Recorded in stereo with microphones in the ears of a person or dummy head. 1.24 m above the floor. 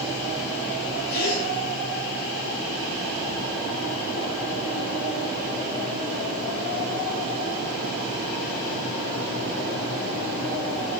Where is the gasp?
65° left (ahead or behind), 8 m.